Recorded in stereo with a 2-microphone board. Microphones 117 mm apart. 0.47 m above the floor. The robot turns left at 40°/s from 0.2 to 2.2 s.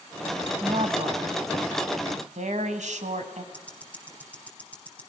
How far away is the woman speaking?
About 3 m.